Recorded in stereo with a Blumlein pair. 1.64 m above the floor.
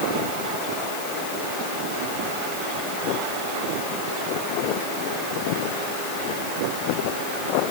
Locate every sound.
Only background noise.